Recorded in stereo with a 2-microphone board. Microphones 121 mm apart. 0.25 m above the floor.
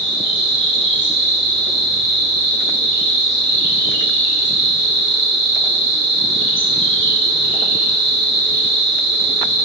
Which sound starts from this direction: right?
An insect, at 0.0 s.